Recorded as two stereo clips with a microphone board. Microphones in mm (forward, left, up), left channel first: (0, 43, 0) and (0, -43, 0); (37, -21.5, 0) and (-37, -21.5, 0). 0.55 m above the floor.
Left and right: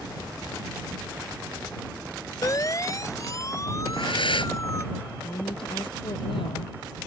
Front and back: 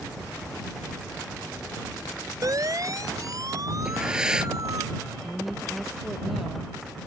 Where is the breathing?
100° left.